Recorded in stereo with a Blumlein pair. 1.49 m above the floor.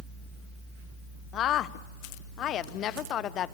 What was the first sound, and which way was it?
A woman speaking, 30° left.